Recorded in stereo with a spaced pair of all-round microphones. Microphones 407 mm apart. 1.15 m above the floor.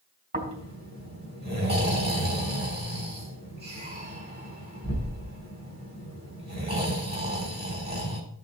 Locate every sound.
0.3 s snoring: 25° right (ahead or behind), 3.5 m